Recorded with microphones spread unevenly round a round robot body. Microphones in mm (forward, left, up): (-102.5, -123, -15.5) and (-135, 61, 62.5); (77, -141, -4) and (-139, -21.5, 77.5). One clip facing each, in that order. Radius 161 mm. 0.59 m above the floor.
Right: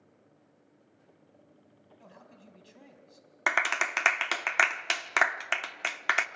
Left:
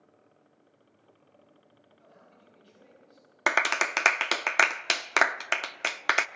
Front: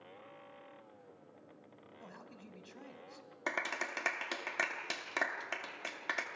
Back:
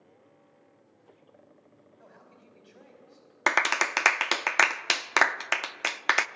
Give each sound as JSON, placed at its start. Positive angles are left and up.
{"t": 2.0, "sound": "a man speaking", "azimuth_deg": -60, "distance_m": 4.0}
{"t": 3.5, "sound": "a clap", "azimuth_deg": 155, "distance_m": 0.7}